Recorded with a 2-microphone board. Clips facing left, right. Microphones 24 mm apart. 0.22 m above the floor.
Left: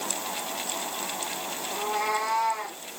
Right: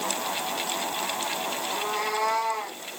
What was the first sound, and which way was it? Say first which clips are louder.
A cat meowing: left 3 dB; 15° right (ahead or behind).